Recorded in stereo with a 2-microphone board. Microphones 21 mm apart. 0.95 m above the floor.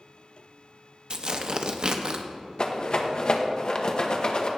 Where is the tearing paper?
40° right (ahead or behind), 0.6 m.